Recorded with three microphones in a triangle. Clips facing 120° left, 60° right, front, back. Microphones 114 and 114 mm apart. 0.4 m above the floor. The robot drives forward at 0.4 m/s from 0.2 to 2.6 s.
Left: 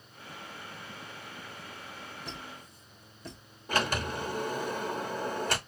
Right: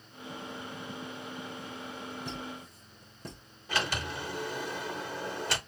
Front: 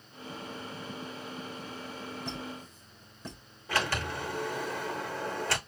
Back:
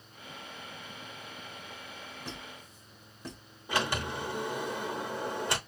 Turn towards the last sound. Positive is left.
turn(degrees=120)